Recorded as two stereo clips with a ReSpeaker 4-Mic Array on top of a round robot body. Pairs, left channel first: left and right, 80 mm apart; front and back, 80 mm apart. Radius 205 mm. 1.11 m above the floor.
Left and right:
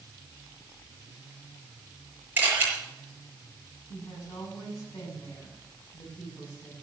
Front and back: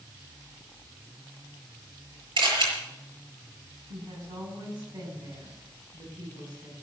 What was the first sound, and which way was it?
A camera shutter, 160° right.